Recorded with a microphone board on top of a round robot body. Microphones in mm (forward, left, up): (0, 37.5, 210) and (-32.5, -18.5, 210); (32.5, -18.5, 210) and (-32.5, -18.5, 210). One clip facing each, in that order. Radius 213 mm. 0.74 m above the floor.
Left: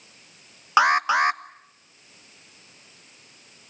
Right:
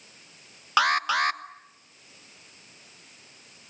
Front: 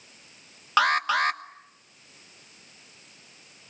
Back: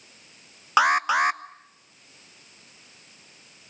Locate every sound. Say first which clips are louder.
0.8 s an alarm: left 4 dB, back 2 dB; 115° left, 1.3 m